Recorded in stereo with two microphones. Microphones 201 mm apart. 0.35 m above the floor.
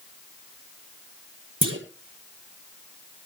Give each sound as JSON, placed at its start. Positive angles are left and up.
{"t": 1.6, "sound": "a clunk", "side_deg": -80, "distance_m": 2.5}